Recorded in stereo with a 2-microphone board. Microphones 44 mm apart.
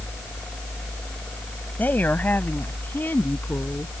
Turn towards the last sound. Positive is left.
turn(degrees=45)  # may be behind; listen again after turning